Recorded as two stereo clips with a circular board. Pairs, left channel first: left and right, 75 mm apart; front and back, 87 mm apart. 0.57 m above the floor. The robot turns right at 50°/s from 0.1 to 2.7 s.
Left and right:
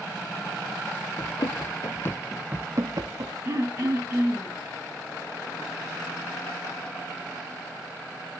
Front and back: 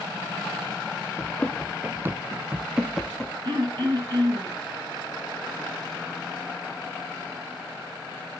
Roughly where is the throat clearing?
Behind right.